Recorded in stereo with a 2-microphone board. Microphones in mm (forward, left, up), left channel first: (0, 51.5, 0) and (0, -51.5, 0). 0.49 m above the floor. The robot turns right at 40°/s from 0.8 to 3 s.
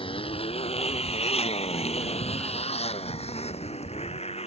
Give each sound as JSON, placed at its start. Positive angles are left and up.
{"t": 0.0, "sound": "a motorcycle", "side_deg": 60}